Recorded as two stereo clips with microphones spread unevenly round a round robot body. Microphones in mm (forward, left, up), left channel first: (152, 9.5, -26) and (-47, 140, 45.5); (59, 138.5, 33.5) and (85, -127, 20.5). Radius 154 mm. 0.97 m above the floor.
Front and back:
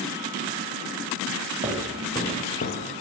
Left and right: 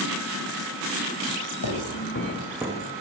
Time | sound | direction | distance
1.6 | footsteps | 95° left | 1.7 m